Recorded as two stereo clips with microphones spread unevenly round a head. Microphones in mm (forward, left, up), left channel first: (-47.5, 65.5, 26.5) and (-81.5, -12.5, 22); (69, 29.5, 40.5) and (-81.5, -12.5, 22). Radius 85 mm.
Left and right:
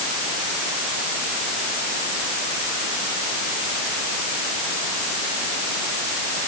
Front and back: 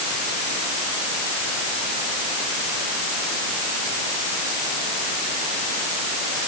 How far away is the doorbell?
I don't hear a doorbell.